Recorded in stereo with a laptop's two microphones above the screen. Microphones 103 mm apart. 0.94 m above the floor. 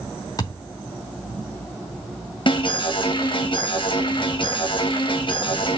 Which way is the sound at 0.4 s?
35° left (ahead or behind).